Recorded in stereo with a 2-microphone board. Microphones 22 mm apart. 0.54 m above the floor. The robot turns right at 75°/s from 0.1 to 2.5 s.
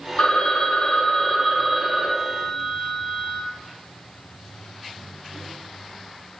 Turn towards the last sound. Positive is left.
turn(degrees=-120)